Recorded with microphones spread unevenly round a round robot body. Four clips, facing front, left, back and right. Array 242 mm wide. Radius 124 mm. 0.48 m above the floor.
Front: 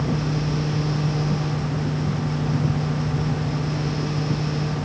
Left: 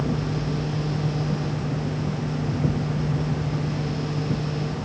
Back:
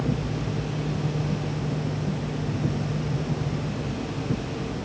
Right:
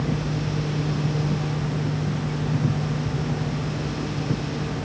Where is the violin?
No violin in this recording.